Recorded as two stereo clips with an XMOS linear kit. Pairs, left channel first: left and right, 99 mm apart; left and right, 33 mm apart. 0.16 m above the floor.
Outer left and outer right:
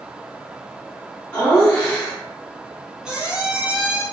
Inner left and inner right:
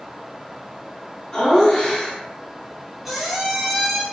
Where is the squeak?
10° right (ahead or behind), 0.7 m.